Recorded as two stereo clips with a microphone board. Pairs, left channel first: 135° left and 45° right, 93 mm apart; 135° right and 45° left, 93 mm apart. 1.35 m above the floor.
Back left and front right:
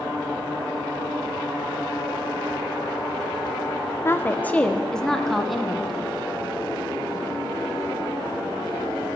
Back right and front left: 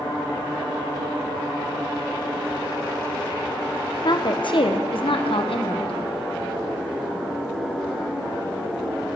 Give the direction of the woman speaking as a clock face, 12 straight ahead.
5 o'clock.